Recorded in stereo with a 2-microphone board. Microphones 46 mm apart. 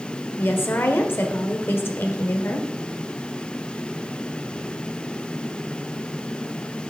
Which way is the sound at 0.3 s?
55° left (ahead or behind).